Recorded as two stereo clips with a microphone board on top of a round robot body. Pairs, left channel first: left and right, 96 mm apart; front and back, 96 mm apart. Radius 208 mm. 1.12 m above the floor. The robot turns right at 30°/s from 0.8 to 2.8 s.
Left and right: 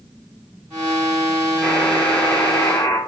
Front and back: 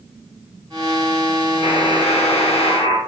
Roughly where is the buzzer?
Ahead.